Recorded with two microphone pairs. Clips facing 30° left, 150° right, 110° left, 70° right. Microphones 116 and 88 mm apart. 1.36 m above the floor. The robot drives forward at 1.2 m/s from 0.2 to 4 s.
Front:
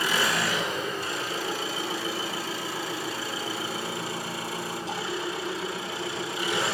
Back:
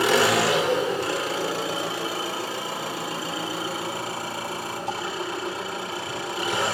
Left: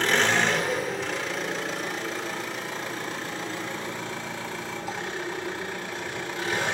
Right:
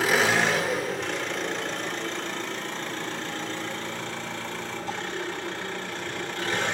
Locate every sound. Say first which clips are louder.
0.0 s an engine running: back 7 dB, right 1 dB; 155° right, 1.8 m; by 6.7 s 175° right, 6 m